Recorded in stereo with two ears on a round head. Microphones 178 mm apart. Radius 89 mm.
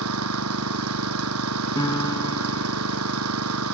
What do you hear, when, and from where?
0.0 s an engine running: 90° right
1.8 s a piano: 20° left (ahead or behind)